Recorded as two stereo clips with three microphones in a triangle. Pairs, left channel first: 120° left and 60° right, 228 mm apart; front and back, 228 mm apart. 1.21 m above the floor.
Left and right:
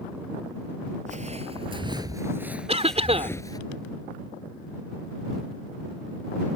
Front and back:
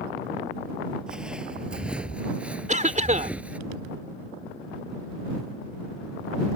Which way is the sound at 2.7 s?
125° right.